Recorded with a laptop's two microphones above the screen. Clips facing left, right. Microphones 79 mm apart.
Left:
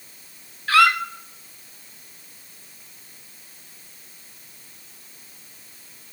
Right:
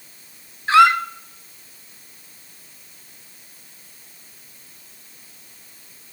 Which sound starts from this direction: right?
A squeak, at 0.7 s.